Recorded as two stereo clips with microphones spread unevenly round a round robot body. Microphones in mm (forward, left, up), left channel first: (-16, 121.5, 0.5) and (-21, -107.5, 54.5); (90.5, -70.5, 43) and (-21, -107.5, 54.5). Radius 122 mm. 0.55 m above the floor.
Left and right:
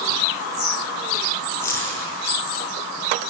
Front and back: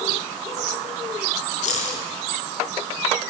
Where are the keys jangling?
10° left, 5.5 m.